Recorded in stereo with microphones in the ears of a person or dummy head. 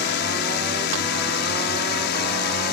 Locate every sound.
0.0 s a drone: 65° left (ahead or behind); by 2.7 s 60° left (ahead or behind)